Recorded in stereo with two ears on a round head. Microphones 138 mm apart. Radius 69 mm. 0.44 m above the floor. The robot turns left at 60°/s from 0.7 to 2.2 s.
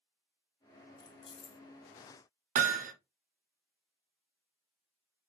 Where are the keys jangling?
25° left (ahead or behind), 0.6 m; by 1.6 s 40° left (ahead or behind), 0.6 m.